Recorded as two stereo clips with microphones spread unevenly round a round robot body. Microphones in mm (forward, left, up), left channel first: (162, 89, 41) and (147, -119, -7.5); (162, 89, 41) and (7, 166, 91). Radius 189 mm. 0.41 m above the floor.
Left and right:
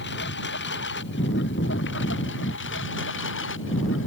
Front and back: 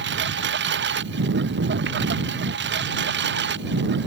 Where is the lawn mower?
150° left; by 4.1 s 145° left.